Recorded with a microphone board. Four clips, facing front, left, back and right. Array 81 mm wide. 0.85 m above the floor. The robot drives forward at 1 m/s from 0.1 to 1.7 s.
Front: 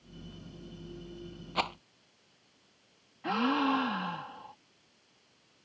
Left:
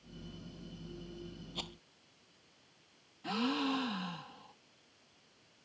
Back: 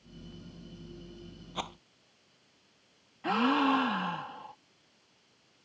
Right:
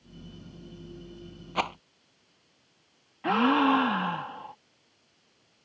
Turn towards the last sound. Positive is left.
turn(degrees=-100)